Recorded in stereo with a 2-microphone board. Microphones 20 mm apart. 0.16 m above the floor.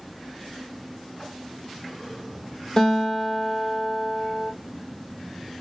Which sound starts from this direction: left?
A guitar, at 2.8 s.